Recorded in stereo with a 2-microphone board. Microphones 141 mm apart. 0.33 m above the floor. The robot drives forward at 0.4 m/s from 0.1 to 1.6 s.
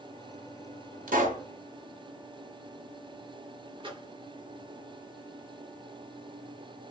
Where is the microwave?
35° right (ahead or behind), 0.7 m.